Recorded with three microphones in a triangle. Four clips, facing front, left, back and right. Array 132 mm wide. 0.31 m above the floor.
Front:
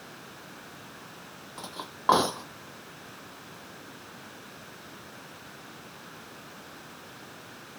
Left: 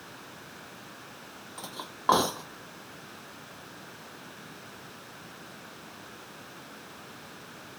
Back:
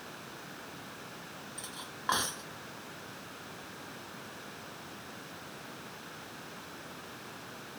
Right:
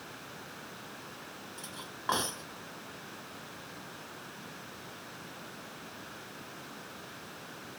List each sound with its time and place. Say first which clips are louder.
1.6 s cutlery clinking: left 3 dB, front 5 dB; 35° left